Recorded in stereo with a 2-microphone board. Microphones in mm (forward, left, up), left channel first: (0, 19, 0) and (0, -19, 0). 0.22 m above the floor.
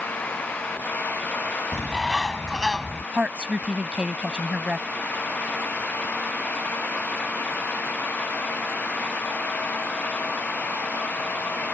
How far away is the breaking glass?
No breaking glass in this recording.